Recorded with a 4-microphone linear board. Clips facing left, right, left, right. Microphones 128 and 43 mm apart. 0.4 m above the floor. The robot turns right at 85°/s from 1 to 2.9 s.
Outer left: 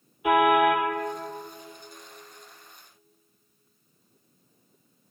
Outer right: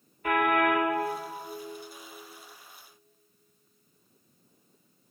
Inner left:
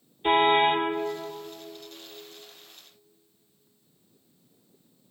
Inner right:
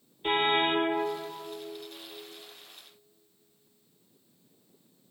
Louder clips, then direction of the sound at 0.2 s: Outer left 5 dB, inner left 5 dB; 10° left (ahead or behind).